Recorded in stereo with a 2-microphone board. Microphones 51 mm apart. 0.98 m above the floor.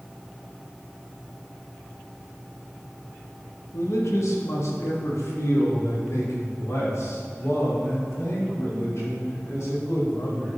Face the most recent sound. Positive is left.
turn(degrees=65)  # may be behind; listen again after turning